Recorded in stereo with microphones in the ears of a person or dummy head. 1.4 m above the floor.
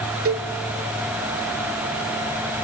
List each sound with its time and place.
0.2 s a cowbell: 45° right (ahead or behind), 0.9 m